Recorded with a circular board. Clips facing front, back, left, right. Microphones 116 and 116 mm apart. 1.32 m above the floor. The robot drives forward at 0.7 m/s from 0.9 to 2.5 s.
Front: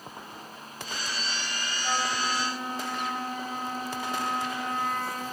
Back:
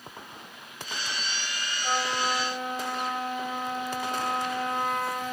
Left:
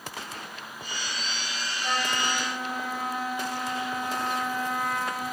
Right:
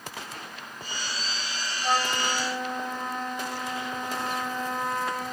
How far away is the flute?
About 2.5 m.